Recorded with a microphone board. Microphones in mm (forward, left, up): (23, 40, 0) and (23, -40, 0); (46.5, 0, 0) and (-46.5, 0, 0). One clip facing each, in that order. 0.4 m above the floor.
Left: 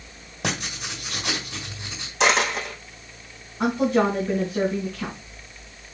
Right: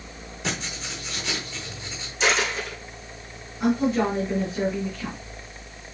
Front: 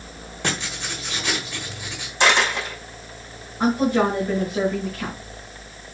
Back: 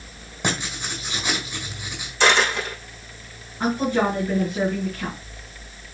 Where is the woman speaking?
75° left, 4 m.